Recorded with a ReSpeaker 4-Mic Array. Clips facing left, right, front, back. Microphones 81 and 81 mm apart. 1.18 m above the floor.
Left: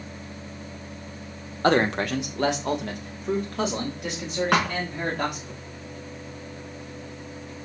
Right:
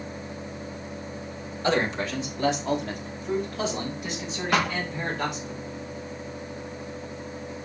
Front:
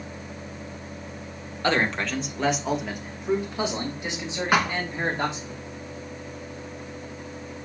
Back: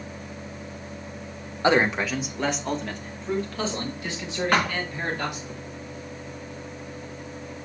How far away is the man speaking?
About 1.3 m.